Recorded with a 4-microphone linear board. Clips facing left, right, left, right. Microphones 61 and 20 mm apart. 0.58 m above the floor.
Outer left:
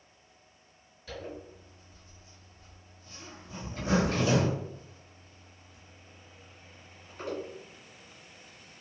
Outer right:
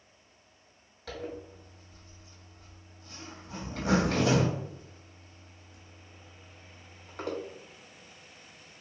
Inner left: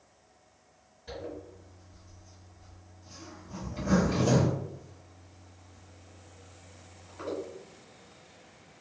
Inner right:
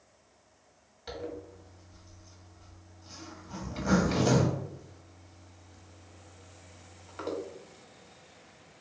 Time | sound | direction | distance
1.1 | a zipper | 90° right | 1.3 m